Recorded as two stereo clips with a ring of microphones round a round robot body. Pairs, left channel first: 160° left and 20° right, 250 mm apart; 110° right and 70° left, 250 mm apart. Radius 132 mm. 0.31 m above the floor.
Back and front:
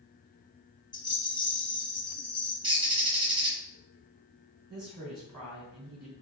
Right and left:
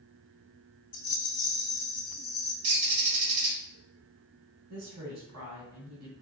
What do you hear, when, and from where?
0.9 s a rattle: 140° right, 1.6 m
2.6 s a bird: 50° left, 1.9 m
4.7 s a woman speaking: 25° left, 2.5 m